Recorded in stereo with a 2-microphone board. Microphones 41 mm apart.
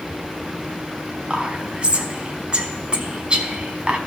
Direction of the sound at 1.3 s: 25° right (ahead or behind).